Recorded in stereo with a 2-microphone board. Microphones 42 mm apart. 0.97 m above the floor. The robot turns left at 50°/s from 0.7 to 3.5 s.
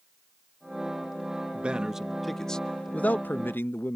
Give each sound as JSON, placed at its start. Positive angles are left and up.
{"t": 1.5, "sound": "a man speaking", "azimuth_deg": -145}